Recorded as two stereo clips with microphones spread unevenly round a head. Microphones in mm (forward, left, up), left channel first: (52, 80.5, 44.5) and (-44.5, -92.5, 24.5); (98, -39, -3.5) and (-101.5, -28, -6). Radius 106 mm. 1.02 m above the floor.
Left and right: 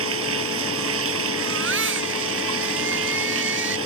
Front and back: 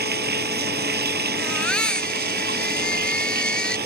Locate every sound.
0.0 s running water: 145° right
1.4 s a baby crying: 90° right